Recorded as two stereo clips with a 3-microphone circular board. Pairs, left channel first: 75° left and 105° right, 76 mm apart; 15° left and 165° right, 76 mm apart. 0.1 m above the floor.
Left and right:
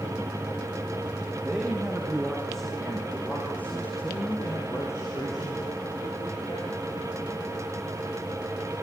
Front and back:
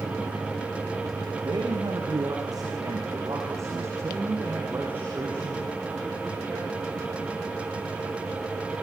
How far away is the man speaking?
About 6 m.